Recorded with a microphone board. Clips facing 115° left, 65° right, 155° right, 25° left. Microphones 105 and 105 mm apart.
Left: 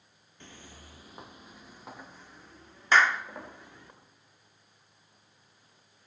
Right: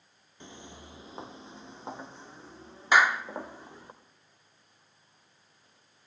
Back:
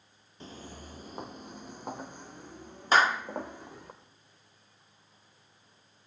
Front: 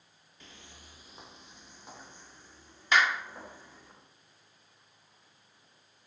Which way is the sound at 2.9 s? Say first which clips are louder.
Right 1 dB, back 3 dB; 135° right.